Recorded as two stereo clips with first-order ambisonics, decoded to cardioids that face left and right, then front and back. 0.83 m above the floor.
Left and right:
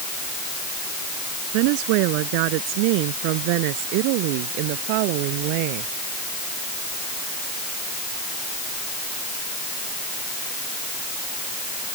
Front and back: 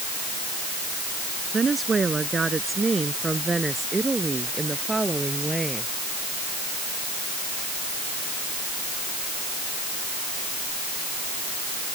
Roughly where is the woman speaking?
Right.